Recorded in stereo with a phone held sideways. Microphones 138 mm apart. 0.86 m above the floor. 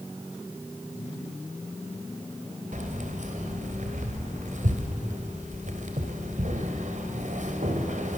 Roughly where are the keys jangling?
Right.